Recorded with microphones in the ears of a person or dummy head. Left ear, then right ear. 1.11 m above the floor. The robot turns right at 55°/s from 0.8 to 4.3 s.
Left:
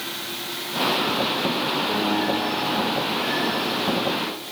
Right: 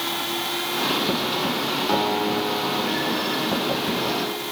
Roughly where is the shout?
I don't hear a shout.